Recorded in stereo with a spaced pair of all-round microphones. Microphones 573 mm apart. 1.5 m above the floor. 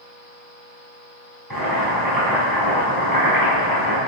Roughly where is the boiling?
Right.